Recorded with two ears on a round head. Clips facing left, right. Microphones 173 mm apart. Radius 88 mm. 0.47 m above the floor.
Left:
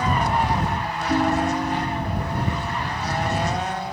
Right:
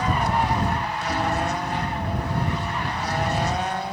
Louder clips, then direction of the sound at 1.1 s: Left 5 dB; 20° left (ahead or behind).